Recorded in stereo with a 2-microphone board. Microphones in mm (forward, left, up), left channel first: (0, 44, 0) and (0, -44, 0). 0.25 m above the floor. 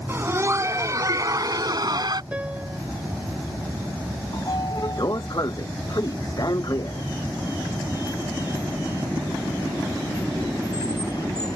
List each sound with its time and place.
0.1 s laughter: 25° right (ahead or behind); by 2.2 s 50° right (ahead or behind)
2.3 s a piano: 15° right (ahead or behind)
4.3 s a sliding door: 45° left (ahead or behind)